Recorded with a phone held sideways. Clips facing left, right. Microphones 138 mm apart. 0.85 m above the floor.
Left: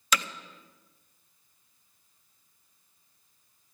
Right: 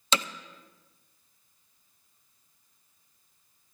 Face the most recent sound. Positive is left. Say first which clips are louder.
# even
turn(degrees=-25)  # may be behind; listen again after turning